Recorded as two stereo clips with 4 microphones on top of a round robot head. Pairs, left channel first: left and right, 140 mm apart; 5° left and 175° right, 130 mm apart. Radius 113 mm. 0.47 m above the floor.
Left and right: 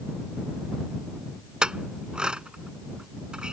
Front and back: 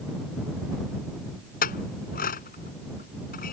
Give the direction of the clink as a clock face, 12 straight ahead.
12 o'clock.